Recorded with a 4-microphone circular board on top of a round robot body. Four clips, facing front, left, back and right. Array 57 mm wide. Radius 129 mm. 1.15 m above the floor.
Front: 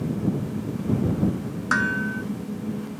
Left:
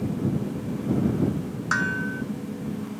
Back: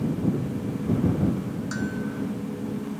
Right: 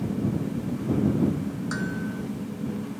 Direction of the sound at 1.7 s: 30° left.